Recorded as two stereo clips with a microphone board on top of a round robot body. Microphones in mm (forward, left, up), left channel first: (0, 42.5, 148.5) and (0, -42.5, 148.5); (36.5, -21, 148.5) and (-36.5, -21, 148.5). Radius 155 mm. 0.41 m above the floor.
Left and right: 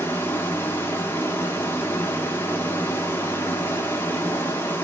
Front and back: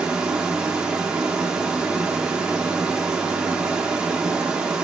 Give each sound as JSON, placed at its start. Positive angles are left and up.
{"t": 0.0, "sound": "running water", "azimuth_deg": 115, "distance_m": 1.1}